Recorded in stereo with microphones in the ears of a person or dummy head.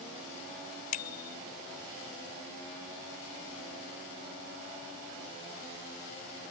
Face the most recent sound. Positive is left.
turn(degrees=50)  # may be behind; listen again after turning